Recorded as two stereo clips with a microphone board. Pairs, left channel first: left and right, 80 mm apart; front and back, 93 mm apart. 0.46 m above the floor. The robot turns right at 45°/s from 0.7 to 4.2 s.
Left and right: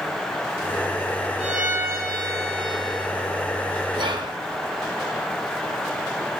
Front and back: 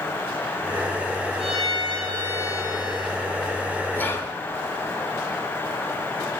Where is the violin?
175° right, 5.5 m; by 3.1 s 95° right, 5.5 m.